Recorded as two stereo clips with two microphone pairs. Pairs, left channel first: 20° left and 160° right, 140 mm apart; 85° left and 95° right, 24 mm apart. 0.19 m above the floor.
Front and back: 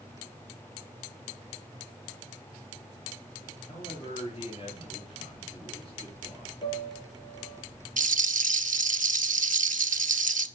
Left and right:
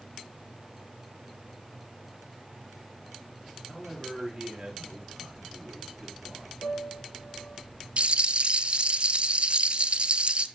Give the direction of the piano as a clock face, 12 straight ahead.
10 o'clock.